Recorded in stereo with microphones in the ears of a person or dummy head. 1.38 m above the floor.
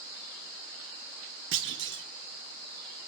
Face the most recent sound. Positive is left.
turn(degrees=-60)  # may be behind; listen again after turning